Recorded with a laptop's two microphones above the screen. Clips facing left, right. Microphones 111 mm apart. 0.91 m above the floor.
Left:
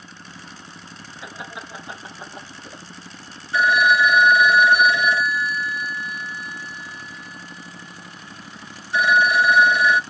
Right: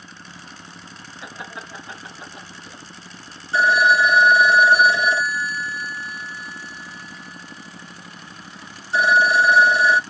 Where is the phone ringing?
30° right (ahead or behind), 0.8 m.